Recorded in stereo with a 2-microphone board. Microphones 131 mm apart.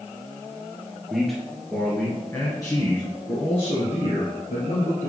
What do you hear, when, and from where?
1.1 s a man speaking: 5° right (ahead or behind), 2 m; by 5.1 s 60° left (ahead or behind), 3 m